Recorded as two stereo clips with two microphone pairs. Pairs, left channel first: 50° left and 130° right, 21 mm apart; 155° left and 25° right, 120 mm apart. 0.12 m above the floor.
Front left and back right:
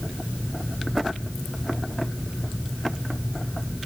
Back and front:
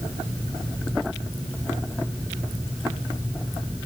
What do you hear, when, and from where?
Only background noise.